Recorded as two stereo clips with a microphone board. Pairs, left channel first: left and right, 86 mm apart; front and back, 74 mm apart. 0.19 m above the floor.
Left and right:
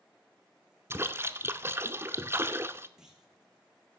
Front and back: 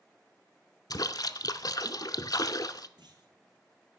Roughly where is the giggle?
No giggle in this recording.